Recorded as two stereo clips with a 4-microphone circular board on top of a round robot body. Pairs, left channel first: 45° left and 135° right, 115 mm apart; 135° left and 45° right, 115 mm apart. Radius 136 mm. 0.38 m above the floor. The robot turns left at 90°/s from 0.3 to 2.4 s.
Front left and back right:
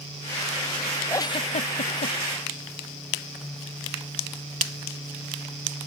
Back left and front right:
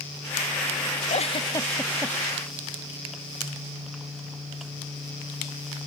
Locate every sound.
1.1 s a giggle: 115° left; by 2.1 s 20° left